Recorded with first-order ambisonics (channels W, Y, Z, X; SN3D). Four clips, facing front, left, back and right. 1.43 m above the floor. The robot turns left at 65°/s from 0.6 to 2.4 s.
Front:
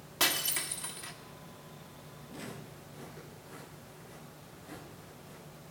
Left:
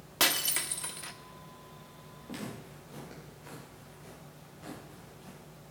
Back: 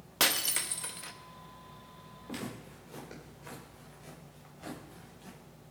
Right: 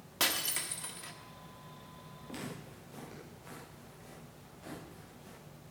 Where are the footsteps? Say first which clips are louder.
Left 2 dB, back 4 dB; 140° left, 9.5 m; by 5.4 s 150° left, 12 m.